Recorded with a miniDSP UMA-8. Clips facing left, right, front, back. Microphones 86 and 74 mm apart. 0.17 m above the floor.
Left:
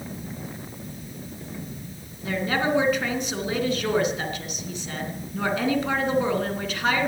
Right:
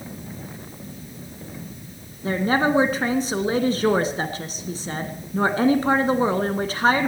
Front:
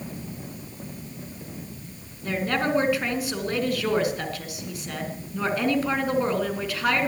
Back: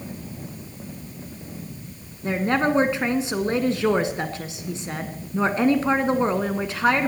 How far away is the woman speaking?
About 2 m.